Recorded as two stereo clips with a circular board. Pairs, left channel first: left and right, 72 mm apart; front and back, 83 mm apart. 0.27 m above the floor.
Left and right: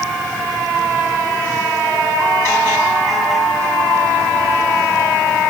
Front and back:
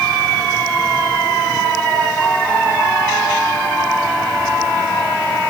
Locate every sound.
Only background noise.